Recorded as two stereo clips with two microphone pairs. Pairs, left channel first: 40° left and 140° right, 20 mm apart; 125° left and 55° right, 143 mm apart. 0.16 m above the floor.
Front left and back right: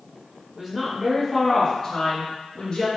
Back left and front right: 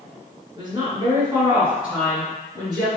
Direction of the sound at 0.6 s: 80° right.